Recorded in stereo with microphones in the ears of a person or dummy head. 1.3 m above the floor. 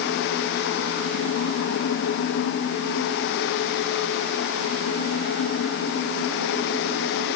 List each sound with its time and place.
Only background noise.